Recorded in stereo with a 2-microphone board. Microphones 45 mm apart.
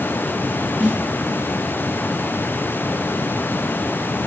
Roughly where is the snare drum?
Right.